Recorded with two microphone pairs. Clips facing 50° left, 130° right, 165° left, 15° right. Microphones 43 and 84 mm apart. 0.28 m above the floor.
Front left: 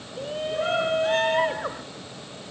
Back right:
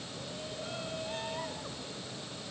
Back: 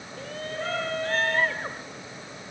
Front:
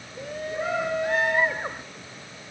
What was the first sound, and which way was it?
A shout, 60° left.